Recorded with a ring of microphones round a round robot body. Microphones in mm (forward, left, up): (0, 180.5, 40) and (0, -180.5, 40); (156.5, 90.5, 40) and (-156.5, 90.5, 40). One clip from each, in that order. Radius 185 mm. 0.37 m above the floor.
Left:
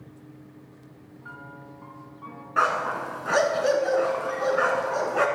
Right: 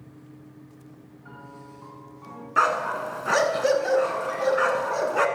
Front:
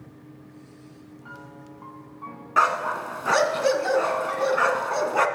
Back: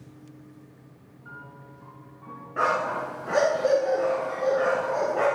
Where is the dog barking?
15° right, 1.5 m.